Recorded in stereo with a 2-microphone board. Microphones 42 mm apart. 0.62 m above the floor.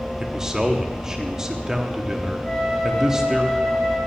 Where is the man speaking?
15° right (ahead or behind), 0.8 m.